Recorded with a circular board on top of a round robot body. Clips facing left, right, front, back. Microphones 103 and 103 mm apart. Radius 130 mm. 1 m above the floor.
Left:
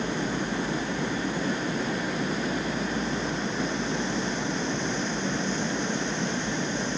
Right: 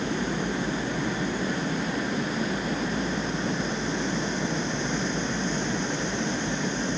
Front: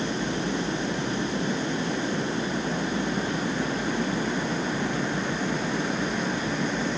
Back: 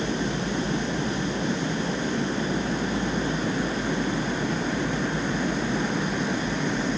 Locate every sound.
Only background noise.